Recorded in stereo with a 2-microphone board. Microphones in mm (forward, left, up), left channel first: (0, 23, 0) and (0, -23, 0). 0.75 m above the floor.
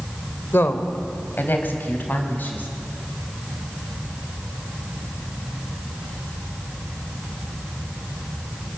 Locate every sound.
0.5 s a woman speaking: 55° left (ahead or behind), 2.5 m; by 2.7 s 40° left (ahead or behind), 5.5 m